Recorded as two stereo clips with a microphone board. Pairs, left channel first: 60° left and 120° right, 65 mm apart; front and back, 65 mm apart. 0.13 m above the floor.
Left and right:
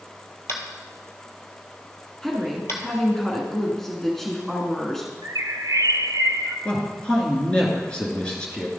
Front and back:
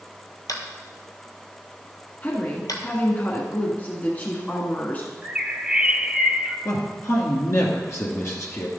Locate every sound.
0.5 s tapping: 15° left, 1.3 m
2.2 s a woman speaking: 20° right, 1.4 m
5.2 s a bird: 105° right, 0.6 m
6.7 s a man speaking: 10° right, 2 m